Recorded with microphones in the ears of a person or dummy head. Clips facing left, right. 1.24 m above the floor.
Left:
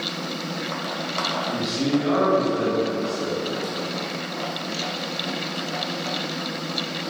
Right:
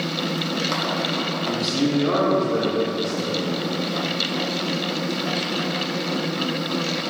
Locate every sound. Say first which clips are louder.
1.4 s a man speaking: right 2 dB; 45° right (ahead or behind), 1.7 m